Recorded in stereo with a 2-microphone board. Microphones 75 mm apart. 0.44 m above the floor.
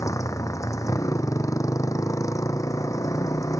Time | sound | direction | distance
0.0 | a motorcycle | 45° left (ahead or behind) | ?